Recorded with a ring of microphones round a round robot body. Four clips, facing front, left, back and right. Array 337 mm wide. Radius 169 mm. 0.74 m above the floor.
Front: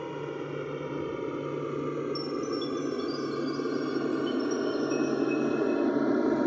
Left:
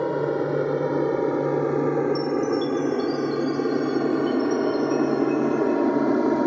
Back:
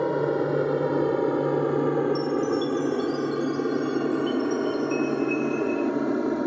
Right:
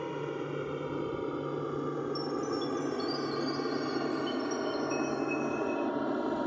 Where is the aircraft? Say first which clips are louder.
Left 12 dB, back 11 dB; 135° left; by 6.5 s 90° left.